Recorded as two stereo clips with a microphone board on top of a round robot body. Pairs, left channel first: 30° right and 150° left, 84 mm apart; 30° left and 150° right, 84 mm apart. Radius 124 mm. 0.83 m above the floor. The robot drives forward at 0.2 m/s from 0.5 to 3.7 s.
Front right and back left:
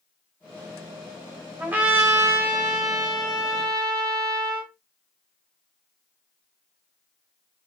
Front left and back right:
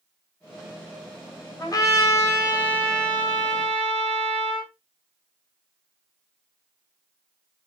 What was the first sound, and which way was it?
A trumpet, 75° left.